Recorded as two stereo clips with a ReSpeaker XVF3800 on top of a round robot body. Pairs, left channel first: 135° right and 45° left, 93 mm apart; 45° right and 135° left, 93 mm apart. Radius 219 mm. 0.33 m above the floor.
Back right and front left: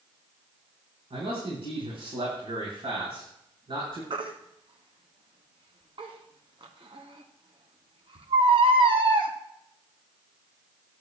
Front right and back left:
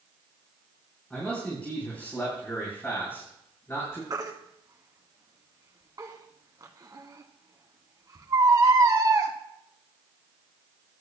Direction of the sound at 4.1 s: 80° left.